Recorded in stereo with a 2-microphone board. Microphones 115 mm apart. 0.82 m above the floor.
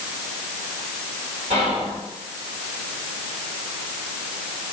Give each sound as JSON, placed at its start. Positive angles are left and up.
{"t": 1.5, "sound": "whispering", "side_deg": -70, "distance_m": 1.1}